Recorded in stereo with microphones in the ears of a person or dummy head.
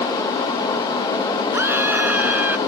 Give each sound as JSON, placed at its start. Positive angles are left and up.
{"t": 1.5, "sound": "a scream", "side_deg": -20}